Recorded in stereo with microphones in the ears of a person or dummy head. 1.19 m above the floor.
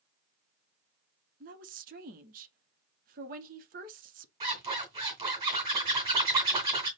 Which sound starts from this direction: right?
A woman speaking, at 1.4 s.